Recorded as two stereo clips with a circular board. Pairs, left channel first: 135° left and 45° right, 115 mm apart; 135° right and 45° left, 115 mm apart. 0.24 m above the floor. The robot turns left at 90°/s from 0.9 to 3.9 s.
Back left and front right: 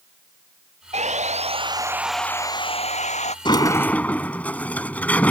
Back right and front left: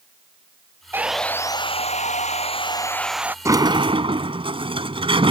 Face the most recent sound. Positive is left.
turn(degrees=60)